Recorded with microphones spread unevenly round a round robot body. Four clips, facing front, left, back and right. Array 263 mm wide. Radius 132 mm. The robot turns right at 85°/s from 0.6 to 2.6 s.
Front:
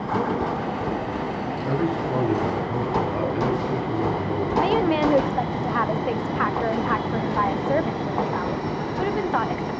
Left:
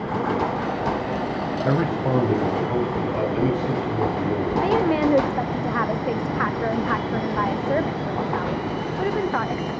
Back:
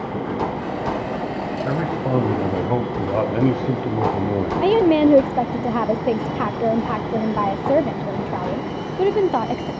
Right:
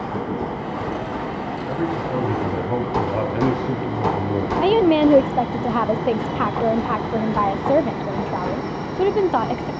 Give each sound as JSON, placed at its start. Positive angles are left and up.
{"t": 1.6, "sound": "a man speaking", "azimuth_deg": 110, "distance_m": 4.0}
{"t": 4.6, "sound": "a woman speaking", "azimuth_deg": -140, "distance_m": 0.6}